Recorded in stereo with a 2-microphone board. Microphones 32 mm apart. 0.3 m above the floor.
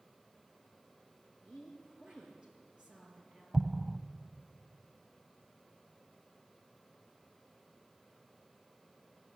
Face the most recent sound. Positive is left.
turn(degrees=-30)  # may be behind; listen again after turning